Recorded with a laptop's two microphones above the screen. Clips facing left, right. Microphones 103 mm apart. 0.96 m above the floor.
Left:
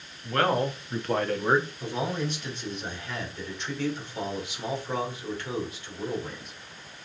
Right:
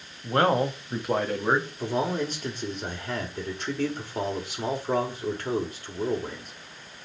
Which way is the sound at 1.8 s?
45° right (ahead or behind).